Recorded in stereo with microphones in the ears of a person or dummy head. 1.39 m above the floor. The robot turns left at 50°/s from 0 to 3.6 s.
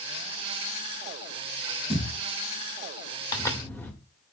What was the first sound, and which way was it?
A thud, 5° right (ahead or behind).